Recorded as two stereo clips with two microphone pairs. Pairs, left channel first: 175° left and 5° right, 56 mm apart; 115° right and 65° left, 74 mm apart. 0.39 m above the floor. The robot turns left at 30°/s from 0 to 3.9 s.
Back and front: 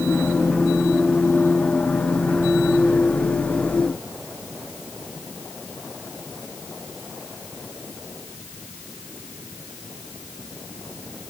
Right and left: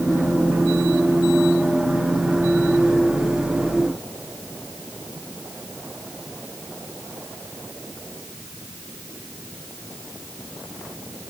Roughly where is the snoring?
I don't hear snoring.